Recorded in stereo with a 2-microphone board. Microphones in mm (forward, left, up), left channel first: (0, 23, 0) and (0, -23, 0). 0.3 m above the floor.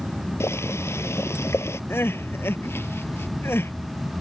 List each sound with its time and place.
0.4 s boiling: 75° left (ahead or behind)
1.9 s crying: 60° left (ahead or behind)